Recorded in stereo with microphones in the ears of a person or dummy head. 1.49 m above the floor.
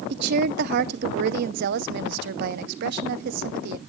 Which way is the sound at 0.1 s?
55° right (ahead or behind).